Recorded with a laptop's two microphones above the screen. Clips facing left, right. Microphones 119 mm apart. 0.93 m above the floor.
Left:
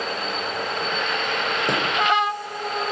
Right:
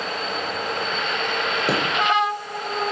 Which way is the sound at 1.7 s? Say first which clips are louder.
Right 2 dB; 10° right (ahead or behind).